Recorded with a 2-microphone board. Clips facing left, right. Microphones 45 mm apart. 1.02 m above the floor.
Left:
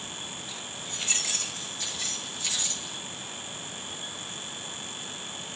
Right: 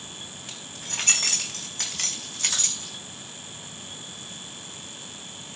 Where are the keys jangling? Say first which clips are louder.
Even; 85° right, 4 m; by 2.9 s 65° right (ahead or behind), 6 m.